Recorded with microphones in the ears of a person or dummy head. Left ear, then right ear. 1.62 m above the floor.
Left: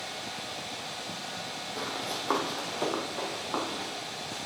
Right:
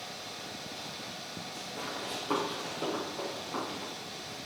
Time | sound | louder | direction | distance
1.8 | running footsteps | left 3 dB | 50° left (ahead or behind) | 2.5 m